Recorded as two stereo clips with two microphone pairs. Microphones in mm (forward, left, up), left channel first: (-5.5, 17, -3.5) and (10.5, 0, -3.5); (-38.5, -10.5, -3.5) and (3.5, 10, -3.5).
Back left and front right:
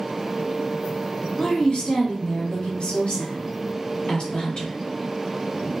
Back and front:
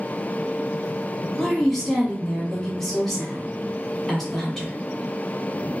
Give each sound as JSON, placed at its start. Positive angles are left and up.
{"t": 1.4, "sound": "a woman speaking", "azimuth_deg": 120, "distance_m": 1.5}